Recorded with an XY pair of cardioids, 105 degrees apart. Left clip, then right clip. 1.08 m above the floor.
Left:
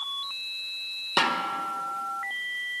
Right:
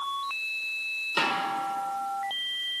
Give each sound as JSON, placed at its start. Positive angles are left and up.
{"t": 1.2, "sound": "a snare drum", "azimuth_deg": 60, "distance_m": 1.2}